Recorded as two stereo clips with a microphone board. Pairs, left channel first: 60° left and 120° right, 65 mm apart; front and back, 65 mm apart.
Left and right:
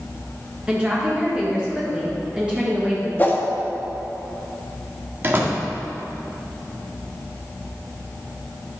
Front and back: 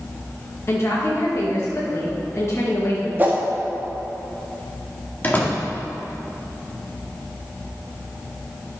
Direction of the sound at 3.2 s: 120° left.